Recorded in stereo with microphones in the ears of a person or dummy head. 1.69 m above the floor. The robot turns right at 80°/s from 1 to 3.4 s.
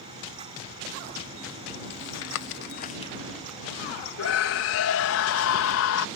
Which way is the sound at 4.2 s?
80° left.